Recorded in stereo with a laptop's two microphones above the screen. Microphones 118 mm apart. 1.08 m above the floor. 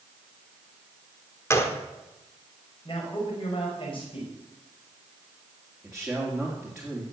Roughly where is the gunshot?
Left.